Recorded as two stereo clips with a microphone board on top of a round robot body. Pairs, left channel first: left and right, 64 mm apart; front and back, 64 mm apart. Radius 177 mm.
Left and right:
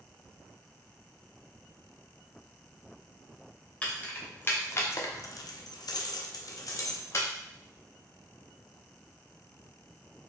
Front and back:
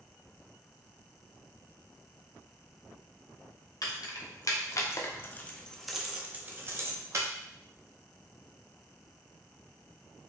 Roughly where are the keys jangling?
Ahead.